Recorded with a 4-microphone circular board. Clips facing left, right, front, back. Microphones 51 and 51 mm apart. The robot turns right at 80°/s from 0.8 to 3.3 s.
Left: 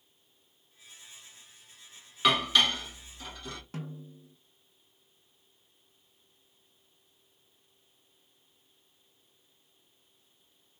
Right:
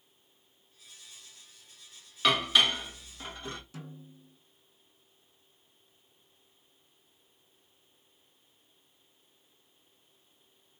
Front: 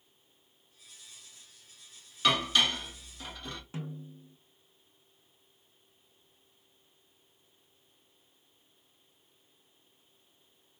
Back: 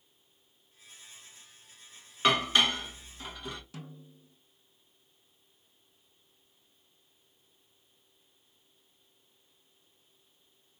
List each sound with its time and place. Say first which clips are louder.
2.2 s dishes clattering: even, back 2 dB; 170° left, 0.9 m; by 3.6 s 105° right, 0.9 m
3.7 s a snare drum: left 5 dB, front 6 dB; 60° left, 0.5 m